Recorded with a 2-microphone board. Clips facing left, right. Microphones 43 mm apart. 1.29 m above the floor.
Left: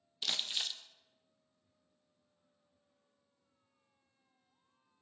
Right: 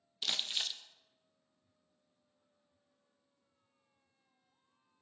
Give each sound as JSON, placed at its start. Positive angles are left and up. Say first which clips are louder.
{"t": 0.2, "sound": "crumpling", "louder": "even", "side_deg": -5, "distance_m": 0.6}